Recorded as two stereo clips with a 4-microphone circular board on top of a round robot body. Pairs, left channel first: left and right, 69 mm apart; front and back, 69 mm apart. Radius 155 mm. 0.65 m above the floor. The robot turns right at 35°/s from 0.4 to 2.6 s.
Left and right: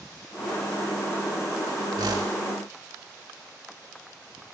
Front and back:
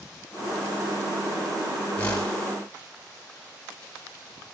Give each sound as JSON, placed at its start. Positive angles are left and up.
{"t": 2.0, "sound": "a whoosh", "azimuth_deg": -70, "distance_m": 1.4}